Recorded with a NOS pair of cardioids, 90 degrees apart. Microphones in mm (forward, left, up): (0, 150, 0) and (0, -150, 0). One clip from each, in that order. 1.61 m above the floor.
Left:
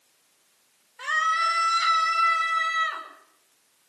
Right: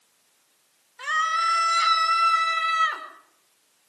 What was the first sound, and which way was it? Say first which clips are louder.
A scream: even; 10° right.